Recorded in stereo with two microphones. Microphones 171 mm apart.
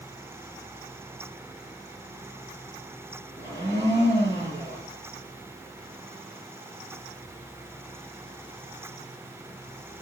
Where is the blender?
35° right (ahead or behind), 8 m.